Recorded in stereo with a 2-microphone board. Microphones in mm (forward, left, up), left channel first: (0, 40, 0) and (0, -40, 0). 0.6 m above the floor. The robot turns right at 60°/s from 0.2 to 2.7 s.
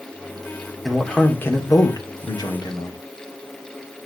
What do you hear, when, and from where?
0.8 s a man speaking: 5° right, 2.0 m; by 3.0 s 110° left, 2.0 m